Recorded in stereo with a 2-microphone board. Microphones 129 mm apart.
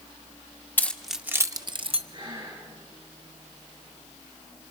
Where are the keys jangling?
15° left (ahead or behind), 0.7 m; by 2.0 s 50° right (ahead or behind), 0.8 m.